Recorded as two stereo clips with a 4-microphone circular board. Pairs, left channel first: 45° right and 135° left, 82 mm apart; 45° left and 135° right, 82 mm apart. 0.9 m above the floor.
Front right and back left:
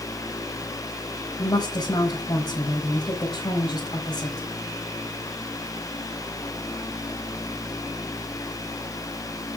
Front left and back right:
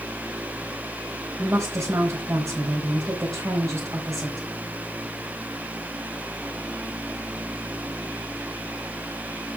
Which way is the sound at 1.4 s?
80° right.